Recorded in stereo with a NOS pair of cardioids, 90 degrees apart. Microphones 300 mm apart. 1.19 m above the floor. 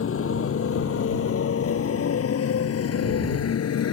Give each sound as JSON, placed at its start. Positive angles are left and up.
{"t": 0.0, "sound": "a motorcycle", "azimuth_deg": 45}